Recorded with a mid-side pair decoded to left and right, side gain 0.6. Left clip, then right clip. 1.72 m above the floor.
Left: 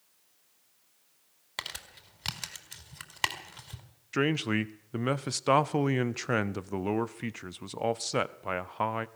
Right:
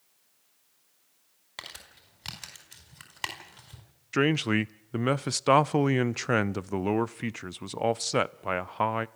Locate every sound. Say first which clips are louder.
1.6 s crumpling: left 4 dB; 25° left, 4 m
4.1 s a man speaking: right 3 dB; 20° right, 0.7 m